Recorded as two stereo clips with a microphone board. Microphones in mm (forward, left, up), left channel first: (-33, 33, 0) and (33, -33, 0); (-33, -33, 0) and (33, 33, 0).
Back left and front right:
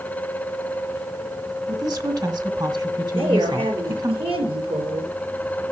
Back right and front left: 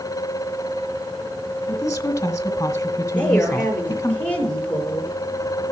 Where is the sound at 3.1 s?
60° right, 5 m.